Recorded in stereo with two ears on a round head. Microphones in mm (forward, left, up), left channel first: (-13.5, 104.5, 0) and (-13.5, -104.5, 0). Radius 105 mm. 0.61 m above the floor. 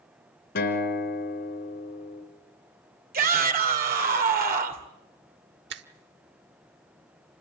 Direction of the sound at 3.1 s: 40° right (ahead or behind).